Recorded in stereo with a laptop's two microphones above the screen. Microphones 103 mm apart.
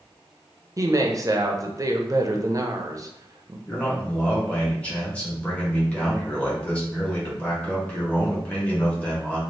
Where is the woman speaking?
35° right (ahead or behind), 0.6 m.